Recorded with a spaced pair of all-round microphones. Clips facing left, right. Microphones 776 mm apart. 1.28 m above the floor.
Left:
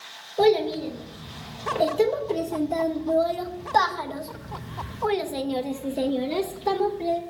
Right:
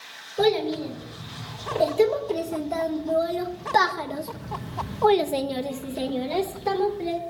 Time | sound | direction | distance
0.4 | a child speaking | 35° right (ahead or behind) | 3 m